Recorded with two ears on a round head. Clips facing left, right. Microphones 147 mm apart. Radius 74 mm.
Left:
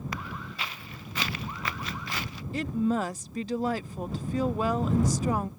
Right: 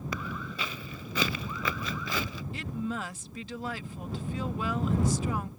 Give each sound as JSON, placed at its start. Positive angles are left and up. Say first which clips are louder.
{"t": 0.1, "sound": "footsteps", "louder": "right 1 dB", "side_deg": -85}
{"t": 2.5, "sound": "a woman speaking", "louder": "left 9 dB", "side_deg": 35}